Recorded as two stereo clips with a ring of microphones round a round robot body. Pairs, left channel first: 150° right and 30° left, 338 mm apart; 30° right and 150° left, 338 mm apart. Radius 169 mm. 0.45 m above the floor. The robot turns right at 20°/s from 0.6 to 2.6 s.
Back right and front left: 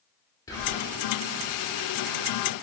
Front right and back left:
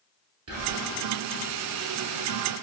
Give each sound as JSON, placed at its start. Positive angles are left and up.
{"t": 0.5, "sound": "whispering", "azimuth_deg": 135, "distance_m": 1.2}